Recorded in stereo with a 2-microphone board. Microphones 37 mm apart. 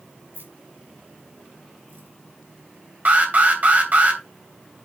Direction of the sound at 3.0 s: 45° right (ahead or behind).